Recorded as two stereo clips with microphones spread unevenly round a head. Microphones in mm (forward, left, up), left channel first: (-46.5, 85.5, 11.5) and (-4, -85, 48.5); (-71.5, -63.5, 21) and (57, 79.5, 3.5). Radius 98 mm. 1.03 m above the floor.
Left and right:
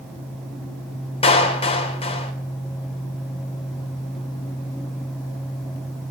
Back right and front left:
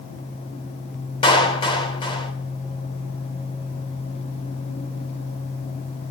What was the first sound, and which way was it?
A clap, 160° left.